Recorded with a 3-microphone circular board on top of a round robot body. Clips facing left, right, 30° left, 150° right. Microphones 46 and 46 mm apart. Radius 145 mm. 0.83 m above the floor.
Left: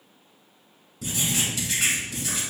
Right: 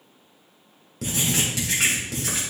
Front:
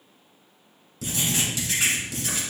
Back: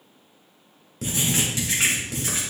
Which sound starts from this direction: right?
Writing, at 1.0 s.